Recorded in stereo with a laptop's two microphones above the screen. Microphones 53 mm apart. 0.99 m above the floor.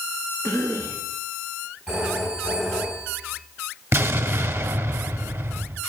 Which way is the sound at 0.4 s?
65° left (ahead or behind).